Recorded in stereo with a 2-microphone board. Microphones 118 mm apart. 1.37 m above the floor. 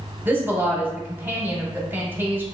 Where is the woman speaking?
15° right (ahead or behind), 0.7 m.